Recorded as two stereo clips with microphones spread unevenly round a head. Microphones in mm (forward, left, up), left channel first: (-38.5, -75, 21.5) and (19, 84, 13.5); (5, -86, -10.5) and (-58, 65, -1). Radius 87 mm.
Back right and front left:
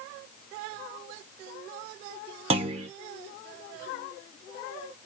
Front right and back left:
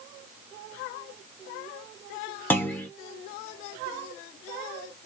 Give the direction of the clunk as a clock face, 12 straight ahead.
12 o'clock.